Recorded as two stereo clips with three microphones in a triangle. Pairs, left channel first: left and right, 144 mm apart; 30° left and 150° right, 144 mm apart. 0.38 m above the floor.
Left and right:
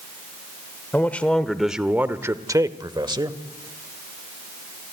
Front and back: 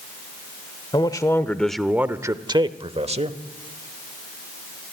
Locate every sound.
0.9 s a man speaking: 25° left, 0.9 m; by 3.4 s 140° right, 1.3 m